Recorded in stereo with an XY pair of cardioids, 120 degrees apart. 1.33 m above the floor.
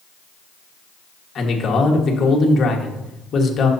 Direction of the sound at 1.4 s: 40° left.